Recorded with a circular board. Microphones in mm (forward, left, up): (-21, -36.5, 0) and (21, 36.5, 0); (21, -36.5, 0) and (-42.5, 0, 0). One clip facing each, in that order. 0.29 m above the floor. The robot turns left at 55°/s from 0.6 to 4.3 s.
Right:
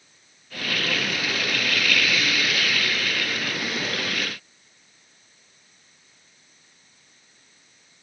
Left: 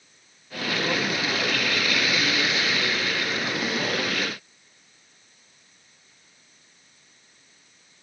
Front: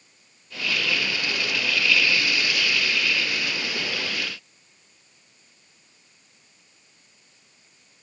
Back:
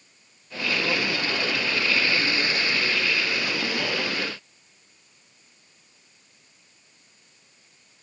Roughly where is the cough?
I don't hear a cough.